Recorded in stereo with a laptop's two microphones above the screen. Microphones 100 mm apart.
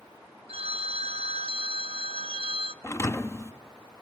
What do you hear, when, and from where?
0.5 s a phone ringing: 70° right (ahead or behind), 0.8 m
2.8 s a thud: 30° left (ahead or behind), 0.5 m